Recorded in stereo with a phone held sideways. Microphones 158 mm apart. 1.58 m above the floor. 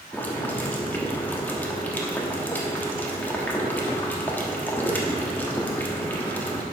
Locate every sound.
0.1 s boiling: 10° left (ahead or behind), 1.2 m